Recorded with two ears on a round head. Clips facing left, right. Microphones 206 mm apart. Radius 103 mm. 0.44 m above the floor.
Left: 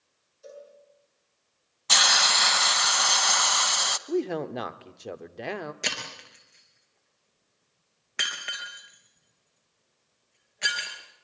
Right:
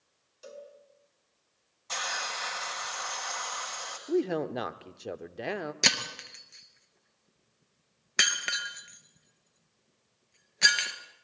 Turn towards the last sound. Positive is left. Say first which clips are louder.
# right 2 dB
turn(degrees=-55)  # may be behind; listen again after turning